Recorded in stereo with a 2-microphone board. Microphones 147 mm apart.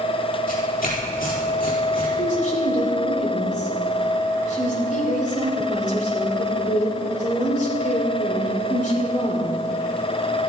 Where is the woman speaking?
60° left (ahead or behind), 2.5 m.